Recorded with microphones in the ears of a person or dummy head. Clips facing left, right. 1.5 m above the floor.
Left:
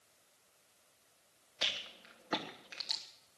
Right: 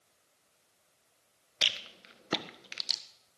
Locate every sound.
1.6 s a rattle: 35° right (ahead or behind), 1.5 m